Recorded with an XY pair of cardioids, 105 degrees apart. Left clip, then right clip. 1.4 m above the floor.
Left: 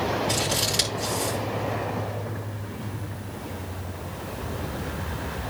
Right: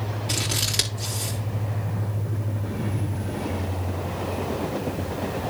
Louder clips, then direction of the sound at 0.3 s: Left 1 dB; 25° right.